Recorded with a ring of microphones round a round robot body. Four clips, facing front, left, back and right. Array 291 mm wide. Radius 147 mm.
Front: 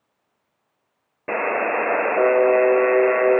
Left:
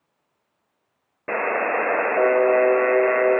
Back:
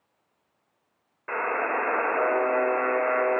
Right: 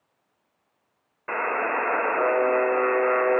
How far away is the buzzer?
About 2 m.